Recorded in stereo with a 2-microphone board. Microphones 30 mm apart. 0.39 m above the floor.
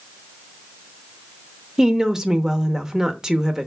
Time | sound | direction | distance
1.8 | a woman speaking | 20° right (ahead or behind) | 0.8 m